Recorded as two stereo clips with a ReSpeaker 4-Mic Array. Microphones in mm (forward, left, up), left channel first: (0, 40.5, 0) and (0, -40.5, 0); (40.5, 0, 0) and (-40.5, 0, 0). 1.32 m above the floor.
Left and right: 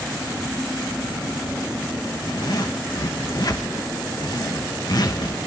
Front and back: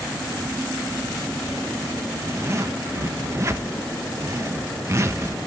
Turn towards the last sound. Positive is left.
turn(degrees=125)